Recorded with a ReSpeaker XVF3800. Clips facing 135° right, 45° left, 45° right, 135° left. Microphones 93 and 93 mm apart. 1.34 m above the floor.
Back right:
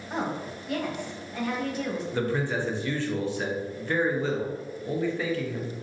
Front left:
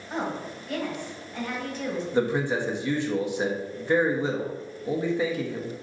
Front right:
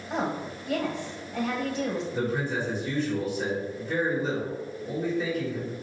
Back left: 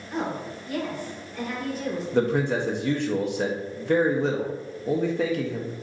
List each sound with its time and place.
0.1 s a woman speaking: 55° right, 1.6 m
2.1 s a man speaking: 115° left, 0.9 m